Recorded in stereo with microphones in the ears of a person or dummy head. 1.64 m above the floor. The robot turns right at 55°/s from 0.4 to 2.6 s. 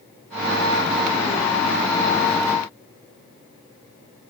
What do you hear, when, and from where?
Only background noise.